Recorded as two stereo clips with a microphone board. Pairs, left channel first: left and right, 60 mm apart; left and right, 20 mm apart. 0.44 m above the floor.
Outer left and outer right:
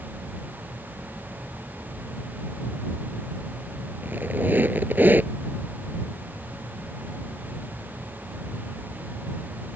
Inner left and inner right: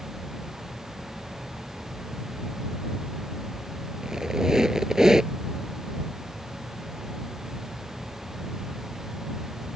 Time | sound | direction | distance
4.0 | a squeak | 30° right (ahead or behind) | ?